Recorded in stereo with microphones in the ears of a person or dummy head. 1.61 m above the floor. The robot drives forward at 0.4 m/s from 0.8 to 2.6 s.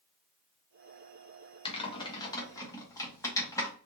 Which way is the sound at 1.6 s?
30° left (ahead or behind).